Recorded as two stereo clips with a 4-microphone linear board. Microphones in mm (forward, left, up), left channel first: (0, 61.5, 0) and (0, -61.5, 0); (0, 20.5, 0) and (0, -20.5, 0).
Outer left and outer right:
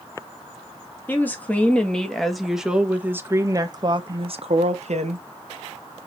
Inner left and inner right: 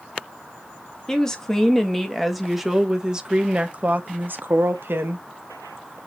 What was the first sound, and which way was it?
A woman speaking, 15° left (ahead or behind).